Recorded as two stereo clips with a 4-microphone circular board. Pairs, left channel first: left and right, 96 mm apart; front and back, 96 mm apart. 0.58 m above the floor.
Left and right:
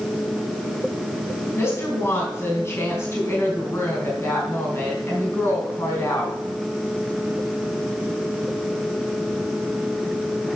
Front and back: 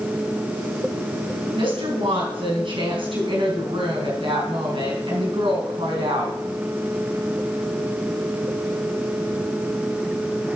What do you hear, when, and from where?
1.6 s a woman speaking: 155° left, 5 m